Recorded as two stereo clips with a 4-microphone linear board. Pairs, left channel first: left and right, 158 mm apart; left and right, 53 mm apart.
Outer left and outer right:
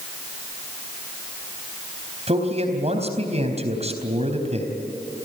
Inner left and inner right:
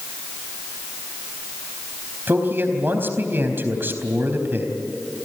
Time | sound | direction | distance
2.3 | a man speaking | 40° right (ahead or behind) | 4 m